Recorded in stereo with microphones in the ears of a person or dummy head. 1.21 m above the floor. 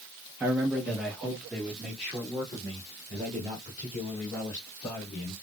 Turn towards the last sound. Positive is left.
turn(degrees=10)  # may be behind; listen again after turning